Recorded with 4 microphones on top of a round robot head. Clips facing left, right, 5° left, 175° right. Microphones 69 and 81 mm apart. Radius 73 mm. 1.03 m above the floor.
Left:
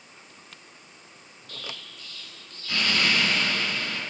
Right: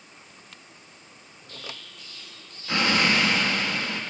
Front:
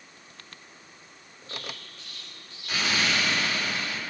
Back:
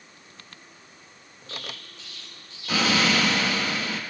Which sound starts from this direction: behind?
An explosion, at 1.5 s.